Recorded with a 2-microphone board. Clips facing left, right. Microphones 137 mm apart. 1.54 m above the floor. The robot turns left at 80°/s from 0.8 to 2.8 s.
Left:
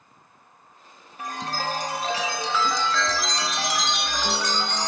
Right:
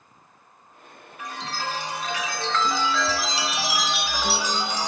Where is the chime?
120° left, 1.0 m; by 4.9 s 5° right, 1.0 m.